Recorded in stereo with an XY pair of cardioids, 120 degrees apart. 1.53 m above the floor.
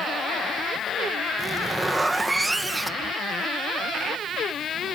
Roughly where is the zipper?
Ahead.